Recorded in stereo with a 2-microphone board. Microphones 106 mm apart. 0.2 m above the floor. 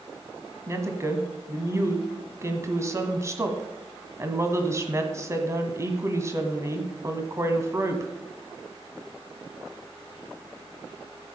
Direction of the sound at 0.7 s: 25° right (ahead or behind).